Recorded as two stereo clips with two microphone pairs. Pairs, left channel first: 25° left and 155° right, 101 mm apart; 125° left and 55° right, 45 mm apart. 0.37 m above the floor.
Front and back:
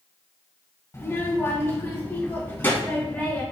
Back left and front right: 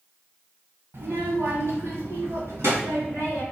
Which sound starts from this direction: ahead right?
A child speaking, at 0.9 s.